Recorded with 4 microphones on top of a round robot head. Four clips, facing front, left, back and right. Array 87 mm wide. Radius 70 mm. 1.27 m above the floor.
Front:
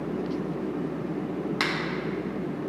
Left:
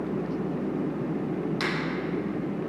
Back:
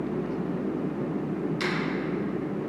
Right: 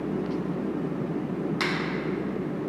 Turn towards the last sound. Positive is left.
turn(degrees=-5)